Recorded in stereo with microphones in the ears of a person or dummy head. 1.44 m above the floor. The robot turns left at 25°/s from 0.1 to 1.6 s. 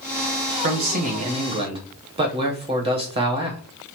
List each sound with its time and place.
0.6 s a man speaking: 55° right (ahead or behind), 1.0 m; by 3.6 s 35° right (ahead or behind), 1.0 m